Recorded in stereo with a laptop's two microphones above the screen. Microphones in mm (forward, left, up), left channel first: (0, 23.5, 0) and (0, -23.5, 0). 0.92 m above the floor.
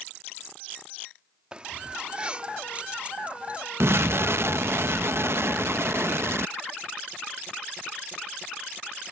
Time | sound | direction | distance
1.5 | keys jangling | 20° right (ahead or behind) | ?
3.8 | an explosion | 60° right (ahead or behind) | ?